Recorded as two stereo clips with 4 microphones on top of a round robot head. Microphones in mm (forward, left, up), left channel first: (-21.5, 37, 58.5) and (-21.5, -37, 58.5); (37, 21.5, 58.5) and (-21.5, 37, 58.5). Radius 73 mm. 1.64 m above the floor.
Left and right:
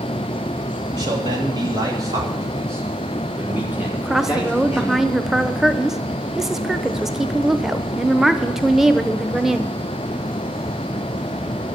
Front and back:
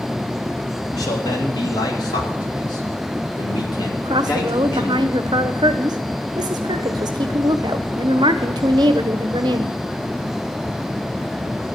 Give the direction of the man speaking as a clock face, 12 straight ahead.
2 o'clock.